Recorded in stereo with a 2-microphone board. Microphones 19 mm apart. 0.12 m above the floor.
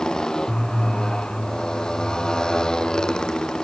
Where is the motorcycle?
40° left (ahead or behind).